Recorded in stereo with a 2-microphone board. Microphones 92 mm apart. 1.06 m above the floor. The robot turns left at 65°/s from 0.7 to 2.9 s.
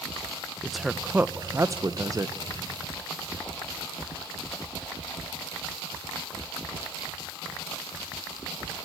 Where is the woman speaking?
Centre (ahead or behind), 0.7 m; by 2.4 s 35° right (ahead or behind), 0.7 m.